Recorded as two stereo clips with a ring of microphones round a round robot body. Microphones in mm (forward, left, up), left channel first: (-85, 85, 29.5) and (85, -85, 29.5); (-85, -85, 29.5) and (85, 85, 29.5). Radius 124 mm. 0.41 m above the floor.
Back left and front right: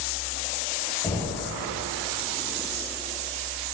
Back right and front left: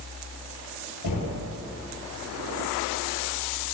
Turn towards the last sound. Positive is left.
turn(degrees=-145)